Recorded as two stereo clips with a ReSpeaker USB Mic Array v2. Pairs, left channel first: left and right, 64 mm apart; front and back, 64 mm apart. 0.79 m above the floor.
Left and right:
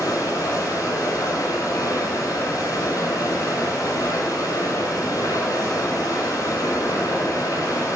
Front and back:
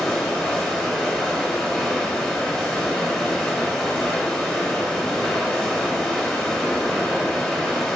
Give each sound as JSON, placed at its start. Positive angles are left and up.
{"t": 0.0, "sound": "running water", "azimuth_deg": 75, "distance_m": 3.0}